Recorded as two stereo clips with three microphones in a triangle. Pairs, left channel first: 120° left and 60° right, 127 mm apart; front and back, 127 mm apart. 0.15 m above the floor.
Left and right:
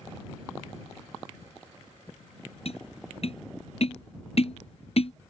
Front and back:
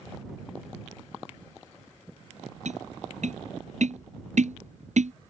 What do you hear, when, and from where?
2.6 s tapping: 155° left